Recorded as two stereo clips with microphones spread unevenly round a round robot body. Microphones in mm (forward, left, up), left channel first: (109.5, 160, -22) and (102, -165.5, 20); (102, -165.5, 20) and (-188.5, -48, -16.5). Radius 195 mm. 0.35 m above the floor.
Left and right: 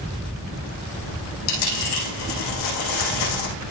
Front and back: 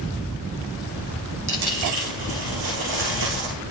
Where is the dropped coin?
95° left, 8.5 m.